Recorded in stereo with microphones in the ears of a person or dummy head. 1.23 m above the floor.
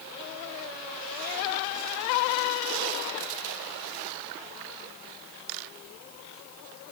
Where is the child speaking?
I don't hear a child speaking.